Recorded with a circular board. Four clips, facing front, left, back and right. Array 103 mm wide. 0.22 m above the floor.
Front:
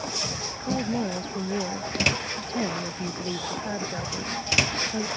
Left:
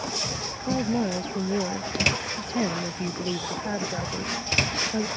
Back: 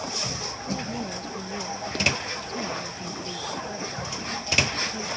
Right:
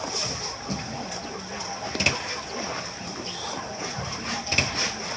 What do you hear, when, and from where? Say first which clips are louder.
0.7 s a woman speaking: left 10 dB, front 6 dB; 65° left